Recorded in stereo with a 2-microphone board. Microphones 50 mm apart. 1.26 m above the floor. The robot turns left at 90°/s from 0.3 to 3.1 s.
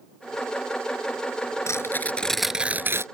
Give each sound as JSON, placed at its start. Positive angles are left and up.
{"t": 1.7, "sound": "tearing paper", "azimuth_deg": 70}